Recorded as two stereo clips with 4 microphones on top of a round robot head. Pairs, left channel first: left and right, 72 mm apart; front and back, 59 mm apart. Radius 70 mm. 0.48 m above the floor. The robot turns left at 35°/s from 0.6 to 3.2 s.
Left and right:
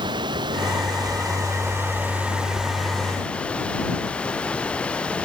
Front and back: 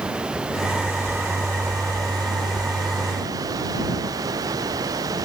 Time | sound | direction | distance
0.0 | running water | 105° right | ?